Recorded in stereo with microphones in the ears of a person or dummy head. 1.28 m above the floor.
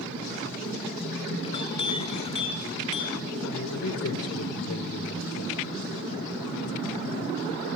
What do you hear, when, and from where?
1.4 s a clink: 30° left (ahead or behind), 3 m
3.4 s a man speaking: 80° left, 5.5 m